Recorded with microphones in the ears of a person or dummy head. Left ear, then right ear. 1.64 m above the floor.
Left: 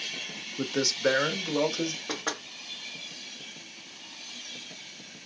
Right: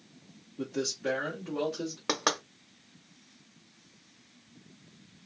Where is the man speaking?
55° left (ahead or behind), 0.6 m; by 2.0 s 80° left, 1.3 m.